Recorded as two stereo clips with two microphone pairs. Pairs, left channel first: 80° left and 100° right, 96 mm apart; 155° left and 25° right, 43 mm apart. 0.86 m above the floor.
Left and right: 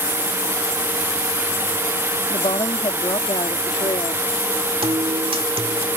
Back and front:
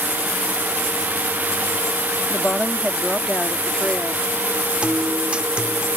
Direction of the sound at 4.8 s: 90° right.